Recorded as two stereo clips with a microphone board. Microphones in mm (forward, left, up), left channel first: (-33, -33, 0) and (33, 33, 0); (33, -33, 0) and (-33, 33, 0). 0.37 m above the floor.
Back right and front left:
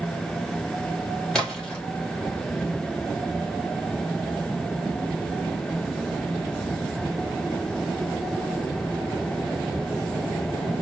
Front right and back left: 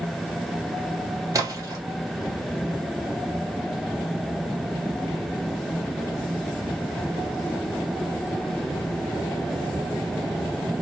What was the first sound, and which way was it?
A splash, 150° left.